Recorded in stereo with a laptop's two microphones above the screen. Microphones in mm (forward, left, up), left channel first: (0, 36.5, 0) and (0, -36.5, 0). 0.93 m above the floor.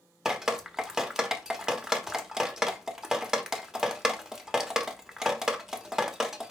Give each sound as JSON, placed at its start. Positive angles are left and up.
{"t": 0.2, "sound": "dripping", "side_deg": -5, "distance_m": 0.9}